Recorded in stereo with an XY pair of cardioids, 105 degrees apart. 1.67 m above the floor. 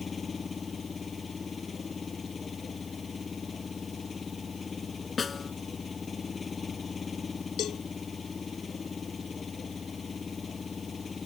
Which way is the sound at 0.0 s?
30° left.